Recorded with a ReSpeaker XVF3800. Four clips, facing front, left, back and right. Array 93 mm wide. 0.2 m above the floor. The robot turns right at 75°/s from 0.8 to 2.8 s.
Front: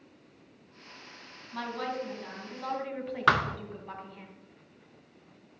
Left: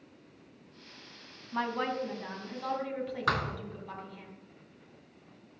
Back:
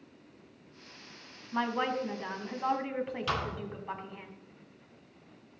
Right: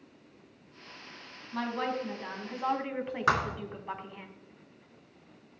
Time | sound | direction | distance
1.5 | a woman speaking | 145° left | 1.6 m
3.3 | a thud | 15° right | 0.6 m